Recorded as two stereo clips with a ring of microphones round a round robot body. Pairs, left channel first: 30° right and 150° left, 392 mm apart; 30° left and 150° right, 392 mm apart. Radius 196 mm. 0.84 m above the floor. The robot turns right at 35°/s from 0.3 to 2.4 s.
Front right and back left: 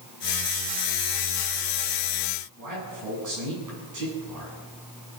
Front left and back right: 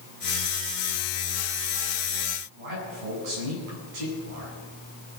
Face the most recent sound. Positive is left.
turn(degrees=-165)